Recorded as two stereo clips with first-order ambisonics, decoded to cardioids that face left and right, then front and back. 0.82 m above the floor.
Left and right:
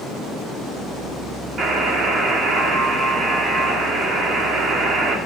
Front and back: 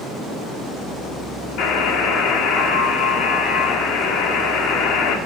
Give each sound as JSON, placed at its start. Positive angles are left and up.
{"t": 1.6, "sound": "a buzzer", "azimuth_deg": -30, "distance_m": 1.5}